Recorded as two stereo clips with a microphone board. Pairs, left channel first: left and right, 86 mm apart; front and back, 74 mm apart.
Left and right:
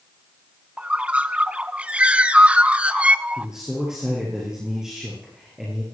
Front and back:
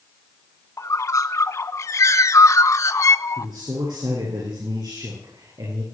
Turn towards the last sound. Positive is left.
turn(degrees=-170)